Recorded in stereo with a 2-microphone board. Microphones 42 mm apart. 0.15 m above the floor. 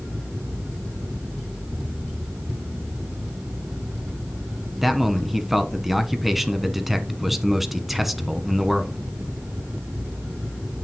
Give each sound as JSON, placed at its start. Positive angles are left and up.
{"t": 4.8, "sound": "a man speaking", "side_deg": -5, "distance_m": 1.0}